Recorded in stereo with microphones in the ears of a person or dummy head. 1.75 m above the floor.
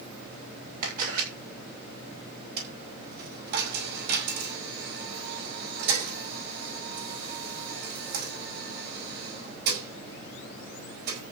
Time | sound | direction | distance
0.8 | a camera shutter | 50° right (ahead or behind) | 6.5 m
2.6 | a dropped coin | 60° right (ahead or behind) | 5.5 m